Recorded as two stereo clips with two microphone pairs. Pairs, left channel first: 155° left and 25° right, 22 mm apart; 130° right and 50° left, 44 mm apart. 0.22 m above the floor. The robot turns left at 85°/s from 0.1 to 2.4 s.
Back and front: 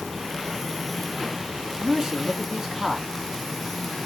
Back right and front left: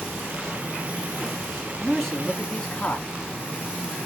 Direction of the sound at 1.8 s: 30° right.